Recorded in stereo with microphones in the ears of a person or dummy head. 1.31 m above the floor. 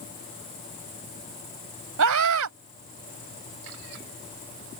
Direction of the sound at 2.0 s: 85° right.